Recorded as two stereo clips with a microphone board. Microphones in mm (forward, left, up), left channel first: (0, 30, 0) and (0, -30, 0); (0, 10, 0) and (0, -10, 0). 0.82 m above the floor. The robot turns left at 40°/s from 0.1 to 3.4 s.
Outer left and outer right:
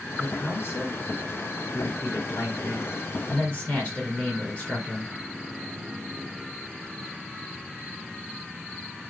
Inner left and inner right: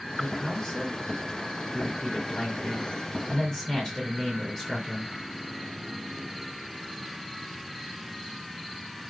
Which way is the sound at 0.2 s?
160° left.